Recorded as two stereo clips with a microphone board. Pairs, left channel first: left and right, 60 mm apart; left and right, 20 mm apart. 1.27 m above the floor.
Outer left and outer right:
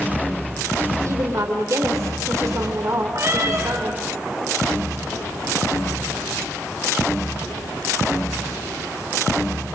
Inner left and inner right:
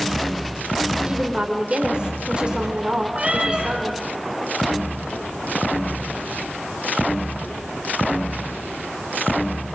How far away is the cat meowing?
About 6.5 m.